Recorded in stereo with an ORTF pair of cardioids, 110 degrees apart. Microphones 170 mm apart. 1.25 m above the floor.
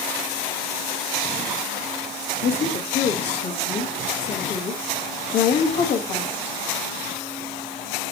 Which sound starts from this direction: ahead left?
A woman speaking, at 2.4 s.